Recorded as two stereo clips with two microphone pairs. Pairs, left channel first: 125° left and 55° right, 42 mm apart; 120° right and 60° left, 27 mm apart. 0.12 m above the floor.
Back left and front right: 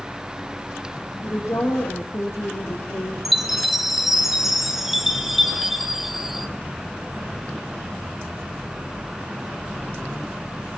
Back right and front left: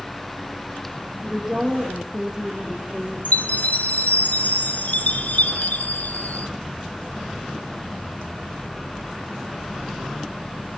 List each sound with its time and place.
1.2 s a woman speaking: 135° left, 5.5 m
3.2 s a chime: 140° right, 1.8 m